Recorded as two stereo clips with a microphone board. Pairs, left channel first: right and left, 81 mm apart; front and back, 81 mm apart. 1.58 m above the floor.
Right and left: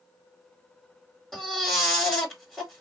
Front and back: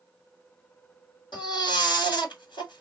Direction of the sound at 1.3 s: Straight ahead.